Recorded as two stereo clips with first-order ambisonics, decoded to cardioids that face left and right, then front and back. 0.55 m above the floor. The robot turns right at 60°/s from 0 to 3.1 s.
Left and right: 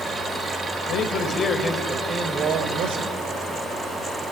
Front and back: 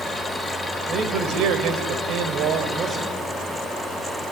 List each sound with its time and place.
0.9 s a man speaking: 120° left, 3 m; by 3.1 s 105° right, 3 m